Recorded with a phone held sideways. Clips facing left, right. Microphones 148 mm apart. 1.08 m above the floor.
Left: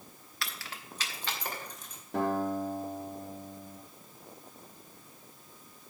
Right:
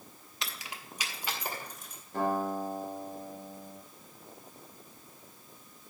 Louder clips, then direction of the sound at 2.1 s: Left 1 dB; 75° left (ahead or behind).